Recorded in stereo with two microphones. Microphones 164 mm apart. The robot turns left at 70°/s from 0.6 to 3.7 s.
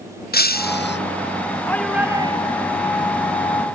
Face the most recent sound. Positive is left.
turn(degrees=-130)